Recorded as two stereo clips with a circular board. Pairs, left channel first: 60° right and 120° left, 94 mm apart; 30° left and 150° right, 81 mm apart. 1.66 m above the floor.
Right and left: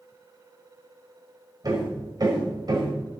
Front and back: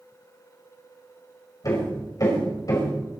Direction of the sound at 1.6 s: 75° left.